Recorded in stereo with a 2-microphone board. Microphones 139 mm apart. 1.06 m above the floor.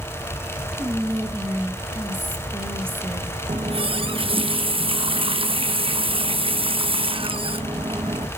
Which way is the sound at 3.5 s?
40° right (ahead or behind).